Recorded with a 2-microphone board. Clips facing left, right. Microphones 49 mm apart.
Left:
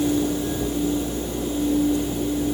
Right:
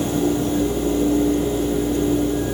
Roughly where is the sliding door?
I don't hear a sliding door.